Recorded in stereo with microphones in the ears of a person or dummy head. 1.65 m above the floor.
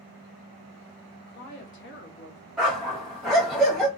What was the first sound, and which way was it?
A woman speaking, 50° left (ahead or behind).